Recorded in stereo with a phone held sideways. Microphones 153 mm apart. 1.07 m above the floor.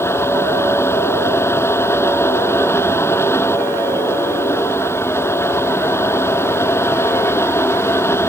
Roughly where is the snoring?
No snoring in this recording.